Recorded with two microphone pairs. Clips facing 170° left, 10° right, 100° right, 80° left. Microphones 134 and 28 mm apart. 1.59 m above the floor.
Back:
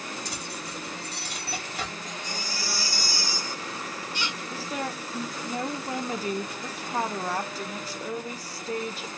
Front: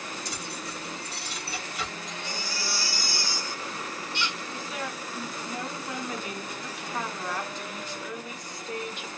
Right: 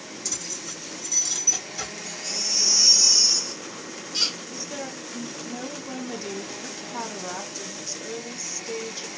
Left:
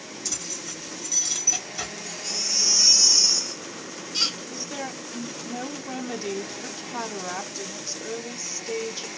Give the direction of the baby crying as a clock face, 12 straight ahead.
6 o'clock.